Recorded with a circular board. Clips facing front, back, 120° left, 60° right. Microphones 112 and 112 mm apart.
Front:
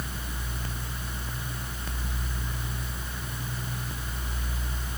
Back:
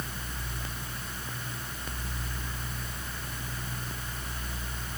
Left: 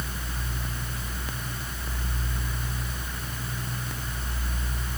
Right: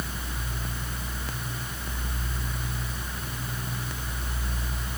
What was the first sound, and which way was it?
Only background noise.